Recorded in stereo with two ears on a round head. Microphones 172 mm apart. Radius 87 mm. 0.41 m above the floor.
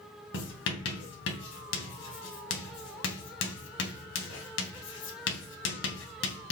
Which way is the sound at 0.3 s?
70° left (ahead or behind).